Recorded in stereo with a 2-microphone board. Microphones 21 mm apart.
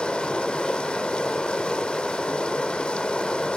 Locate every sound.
0.0 s running water: 45° left (ahead or behind), 1.2 m